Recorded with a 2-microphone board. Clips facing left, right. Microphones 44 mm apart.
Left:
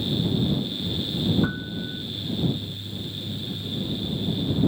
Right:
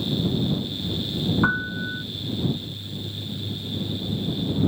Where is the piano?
45° right (ahead or behind).